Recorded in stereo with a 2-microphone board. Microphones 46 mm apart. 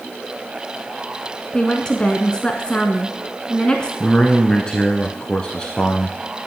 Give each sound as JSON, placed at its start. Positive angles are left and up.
{"t": 1.5, "sound": "a woman speaking", "side_deg": 20, "distance_m": 1.1}
{"t": 4.0, "sound": "a man speaking", "side_deg": 20, "distance_m": 1.4}